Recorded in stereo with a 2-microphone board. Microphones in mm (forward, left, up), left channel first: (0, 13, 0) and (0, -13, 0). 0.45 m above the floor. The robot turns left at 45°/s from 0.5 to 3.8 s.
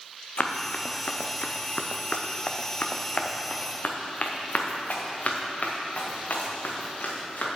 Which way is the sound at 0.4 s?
55° left (ahead or behind).